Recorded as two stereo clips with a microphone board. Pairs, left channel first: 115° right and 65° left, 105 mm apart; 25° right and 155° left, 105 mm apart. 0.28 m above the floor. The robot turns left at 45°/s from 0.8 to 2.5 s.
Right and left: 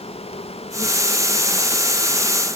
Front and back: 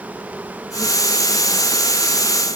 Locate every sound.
0.0 s an insect: 130° right; by 2.6 s 155° left